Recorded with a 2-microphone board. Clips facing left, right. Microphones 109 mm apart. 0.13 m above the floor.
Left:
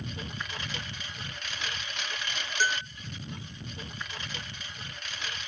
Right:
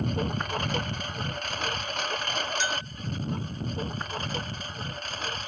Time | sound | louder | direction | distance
0.0 | a lawn mower | right 10 dB | 50° right (ahead or behind) | ?
2.6 | a bell | left 1 dB | 50° left (ahead or behind) | ?